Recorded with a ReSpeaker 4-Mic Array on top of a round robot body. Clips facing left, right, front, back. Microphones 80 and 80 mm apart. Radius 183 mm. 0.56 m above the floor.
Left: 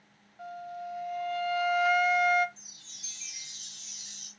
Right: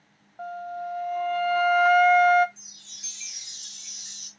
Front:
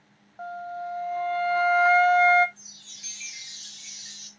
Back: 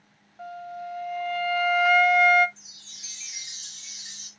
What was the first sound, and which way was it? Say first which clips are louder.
A flute: right 6 dB, front 3 dB; 55° right.